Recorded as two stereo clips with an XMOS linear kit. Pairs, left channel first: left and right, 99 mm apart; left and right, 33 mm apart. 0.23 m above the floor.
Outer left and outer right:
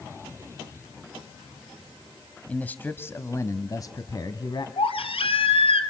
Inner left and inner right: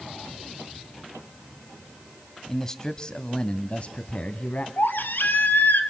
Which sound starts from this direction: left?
A baby crying, at 4.8 s.